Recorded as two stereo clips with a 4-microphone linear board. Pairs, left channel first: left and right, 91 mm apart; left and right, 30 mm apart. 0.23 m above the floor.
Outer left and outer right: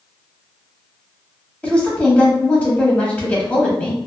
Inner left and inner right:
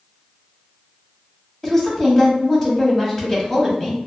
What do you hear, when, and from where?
1.6 s a woman speaking: 15° left (ahead or behind), 0.9 m